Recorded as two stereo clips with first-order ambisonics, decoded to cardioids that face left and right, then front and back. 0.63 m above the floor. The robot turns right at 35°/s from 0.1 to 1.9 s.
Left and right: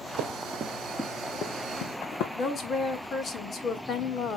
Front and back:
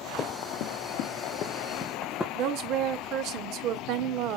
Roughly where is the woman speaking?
Behind left.